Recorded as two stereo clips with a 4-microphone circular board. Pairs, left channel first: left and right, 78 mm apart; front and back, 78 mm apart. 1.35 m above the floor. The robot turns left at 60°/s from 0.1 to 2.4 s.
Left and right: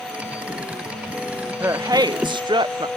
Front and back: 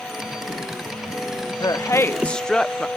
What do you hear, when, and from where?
1.6 s a woman speaking: 30° right, 0.5 m; by 2.9 s 80° right, 0.5 m